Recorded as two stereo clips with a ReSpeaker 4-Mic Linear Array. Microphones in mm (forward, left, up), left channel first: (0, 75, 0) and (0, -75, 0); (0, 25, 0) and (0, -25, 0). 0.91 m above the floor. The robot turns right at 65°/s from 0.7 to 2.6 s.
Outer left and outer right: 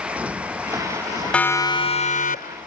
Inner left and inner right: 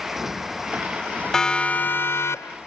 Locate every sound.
0.0 s a motorcycle: 10° right; by 2.7 s 115° left
1.3 s a siren: 5° left (ahead or behind); by 2.6 s 80° left